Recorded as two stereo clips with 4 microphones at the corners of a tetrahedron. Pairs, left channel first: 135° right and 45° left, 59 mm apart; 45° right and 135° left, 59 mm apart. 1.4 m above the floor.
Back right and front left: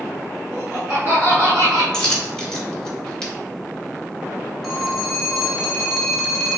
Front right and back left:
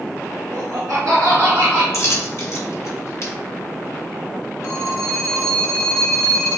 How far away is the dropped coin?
About 1.0 m.